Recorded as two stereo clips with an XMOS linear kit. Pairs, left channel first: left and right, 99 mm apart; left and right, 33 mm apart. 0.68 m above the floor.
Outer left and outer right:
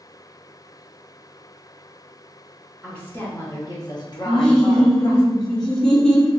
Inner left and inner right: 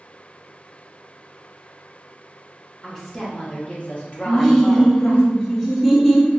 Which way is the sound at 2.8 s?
10° left (ahead or behind).